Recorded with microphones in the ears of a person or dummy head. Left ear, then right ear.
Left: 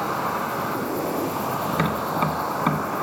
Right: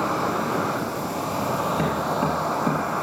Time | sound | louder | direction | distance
0.0 | an insect | right 1 dB | 15° left (ahead or behind) | 5 m
1.7 | tapping | even | 70° left (ahead or behind) | 1.2 m